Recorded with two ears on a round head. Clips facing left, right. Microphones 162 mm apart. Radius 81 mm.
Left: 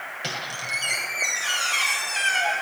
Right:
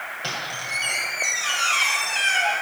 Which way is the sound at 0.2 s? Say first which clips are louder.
Right 1 dB; 20° left (ahead or behind).